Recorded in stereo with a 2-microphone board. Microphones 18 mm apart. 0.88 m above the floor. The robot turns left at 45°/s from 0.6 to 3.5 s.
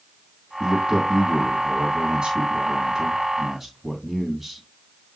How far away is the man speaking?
About 1.9 m.